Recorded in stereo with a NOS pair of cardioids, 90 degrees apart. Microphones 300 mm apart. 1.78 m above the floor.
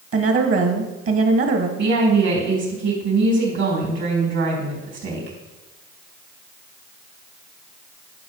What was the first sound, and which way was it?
A woman speaking, 50° right.